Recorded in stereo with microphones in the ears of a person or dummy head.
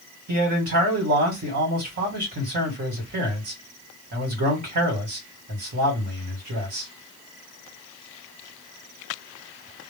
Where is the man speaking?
45° right (ahead or behind), 1.7 m.